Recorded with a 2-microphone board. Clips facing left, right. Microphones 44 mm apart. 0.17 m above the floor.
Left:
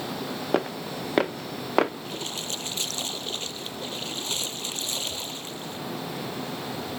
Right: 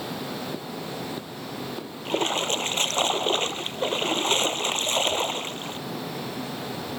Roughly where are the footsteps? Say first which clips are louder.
Left 6 dB; left.